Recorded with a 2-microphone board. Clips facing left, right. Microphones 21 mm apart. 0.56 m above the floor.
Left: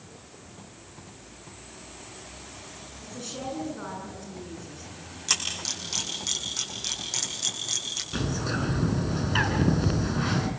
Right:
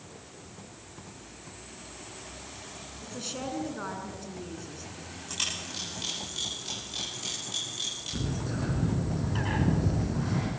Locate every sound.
3.0 s a woman speaking: 20° right (ahead or behind), 7 m
5.3 s a camera shutter: 90° left, 9.5 m
8.1 s a bird: 55° left (ahead or behind), 4 m